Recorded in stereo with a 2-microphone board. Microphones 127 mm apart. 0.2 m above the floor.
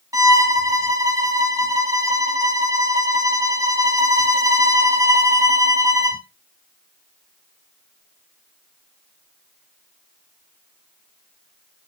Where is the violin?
25° right (ahead or behind), 1.7 m.